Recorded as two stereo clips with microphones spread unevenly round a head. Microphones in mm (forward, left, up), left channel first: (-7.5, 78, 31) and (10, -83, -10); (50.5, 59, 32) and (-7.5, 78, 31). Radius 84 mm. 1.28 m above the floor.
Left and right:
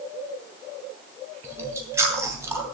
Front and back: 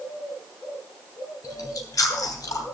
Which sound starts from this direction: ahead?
Chewing, at 1.4 s.